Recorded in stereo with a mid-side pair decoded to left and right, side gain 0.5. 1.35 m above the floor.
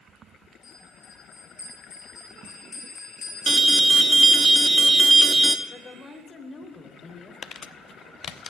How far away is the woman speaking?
About 3 m.